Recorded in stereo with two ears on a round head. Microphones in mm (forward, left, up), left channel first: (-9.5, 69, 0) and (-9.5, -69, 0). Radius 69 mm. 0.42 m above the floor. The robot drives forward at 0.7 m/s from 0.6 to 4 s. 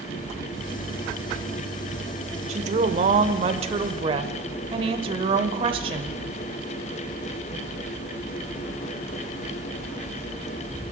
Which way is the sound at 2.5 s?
45° right (ahead or behind).